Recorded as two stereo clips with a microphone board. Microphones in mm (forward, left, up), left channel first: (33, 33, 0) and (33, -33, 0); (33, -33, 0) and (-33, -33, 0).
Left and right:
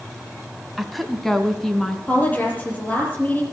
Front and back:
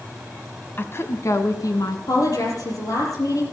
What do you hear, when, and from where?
0.8 s a woman speaking: 5° right, 1.2 m; by 2.0 s 5° left, 2.5 m
2.1 s a woman speaking: 25° left, 5.5 m